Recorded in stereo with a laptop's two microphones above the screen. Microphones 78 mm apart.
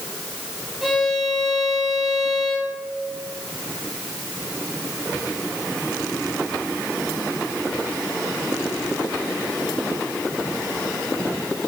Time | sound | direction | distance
0.8 | a violin | centre (ahead or behind) | 2.5 m